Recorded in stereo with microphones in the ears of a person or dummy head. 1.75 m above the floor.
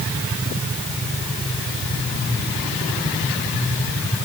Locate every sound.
Only background noise.